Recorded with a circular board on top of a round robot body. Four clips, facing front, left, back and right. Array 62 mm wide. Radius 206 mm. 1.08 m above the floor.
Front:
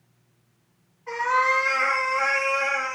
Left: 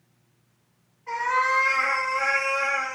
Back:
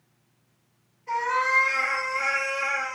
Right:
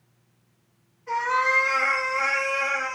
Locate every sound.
1.1 s a cat meowing: 25° left, 1.1 m; by 3.0 s 75° right, 1.0 m